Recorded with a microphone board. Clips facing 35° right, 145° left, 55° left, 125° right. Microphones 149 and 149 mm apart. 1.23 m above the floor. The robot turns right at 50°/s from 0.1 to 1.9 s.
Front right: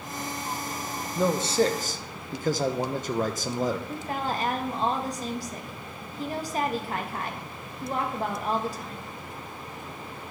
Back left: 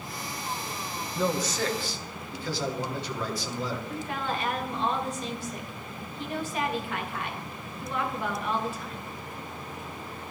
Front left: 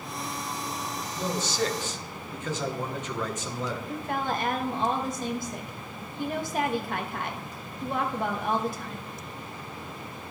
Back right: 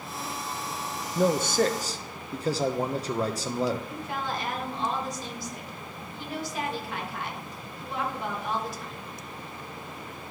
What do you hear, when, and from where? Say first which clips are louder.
1.1 s a man speaking: front right 5 dB, back right 7 dB; 110° right, 0.8 m; by 3.8 s 75° right, 0.8 m
3.9 s a woman speaking: front right 2 dB, front left 3 dB; 20° left, 1.3 m